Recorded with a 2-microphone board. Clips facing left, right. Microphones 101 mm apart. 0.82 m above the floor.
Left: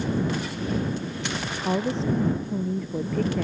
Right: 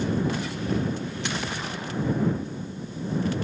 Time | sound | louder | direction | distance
1.6 | a woman speaking | left 7 dB | 75° left (ahead or behind) | ?